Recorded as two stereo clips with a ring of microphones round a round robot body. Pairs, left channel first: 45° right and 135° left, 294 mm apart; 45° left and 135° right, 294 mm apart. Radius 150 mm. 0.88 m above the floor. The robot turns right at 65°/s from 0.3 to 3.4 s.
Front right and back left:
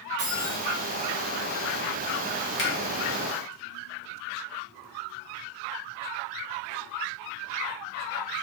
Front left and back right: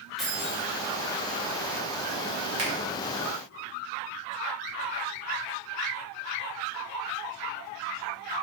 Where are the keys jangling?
135° left, 1.3 m; by 0.6 s 160° left, 1.3 m.